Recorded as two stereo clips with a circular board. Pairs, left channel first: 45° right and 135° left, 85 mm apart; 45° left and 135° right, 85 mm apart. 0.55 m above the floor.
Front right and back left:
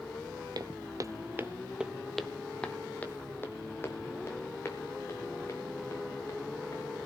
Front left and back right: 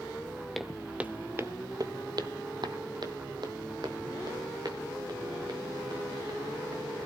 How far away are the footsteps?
About 0.8 m.